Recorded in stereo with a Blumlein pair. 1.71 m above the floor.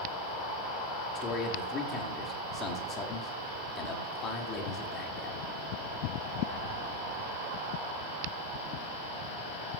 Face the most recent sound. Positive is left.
turn(degrees=25)